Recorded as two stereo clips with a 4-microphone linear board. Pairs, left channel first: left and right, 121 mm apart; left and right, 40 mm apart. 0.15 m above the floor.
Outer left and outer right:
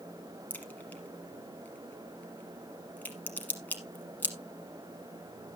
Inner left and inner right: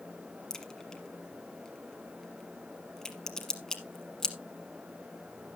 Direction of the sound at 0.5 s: 15° left (ahead or behind).